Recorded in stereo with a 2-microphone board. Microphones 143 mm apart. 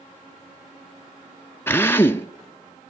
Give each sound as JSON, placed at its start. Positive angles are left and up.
{"t": 1.7, "sound": "a drill", "side_deg": 15, "distance_m": 0.7}